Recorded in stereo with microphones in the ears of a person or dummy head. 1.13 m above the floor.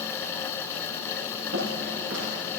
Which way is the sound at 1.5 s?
70° right (ahead or behind).